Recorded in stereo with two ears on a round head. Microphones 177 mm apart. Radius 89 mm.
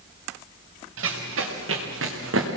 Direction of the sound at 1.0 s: 75° right (ahead or behind).